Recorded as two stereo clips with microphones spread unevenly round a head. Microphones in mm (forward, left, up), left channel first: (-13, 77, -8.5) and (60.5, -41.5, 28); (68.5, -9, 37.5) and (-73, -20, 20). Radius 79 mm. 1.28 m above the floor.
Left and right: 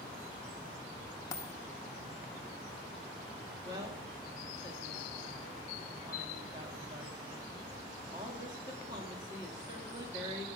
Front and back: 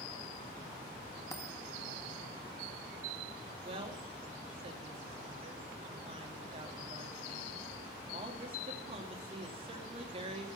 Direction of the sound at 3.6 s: 125° right.